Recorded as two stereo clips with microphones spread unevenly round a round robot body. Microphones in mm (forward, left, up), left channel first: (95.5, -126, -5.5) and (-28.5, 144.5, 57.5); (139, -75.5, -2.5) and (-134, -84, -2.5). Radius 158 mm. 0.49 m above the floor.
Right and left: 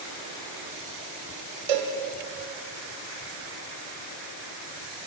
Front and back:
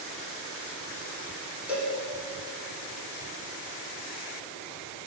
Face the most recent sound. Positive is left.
turn(degrees=95)